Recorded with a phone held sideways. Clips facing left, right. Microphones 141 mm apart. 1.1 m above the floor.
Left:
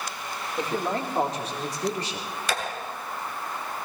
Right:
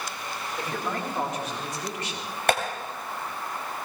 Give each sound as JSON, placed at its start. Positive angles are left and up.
{"t": 0.6, "sound": "a man speaking", "side_deg": 30, "distance_m": 4.0}
{"t": 2.5, "sound": "tapping", "side_deg": -55, "distance_m": 3.0}